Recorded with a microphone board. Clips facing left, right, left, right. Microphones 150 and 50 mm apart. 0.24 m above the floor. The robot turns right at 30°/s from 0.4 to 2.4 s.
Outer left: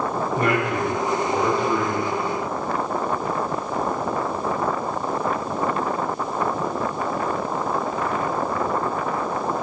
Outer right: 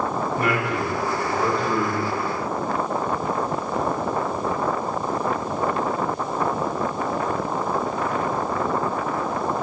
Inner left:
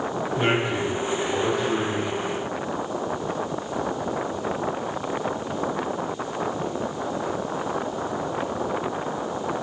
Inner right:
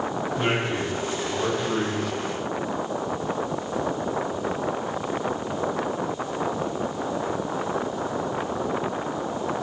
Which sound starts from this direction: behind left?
A man speaking, at 0.4 s.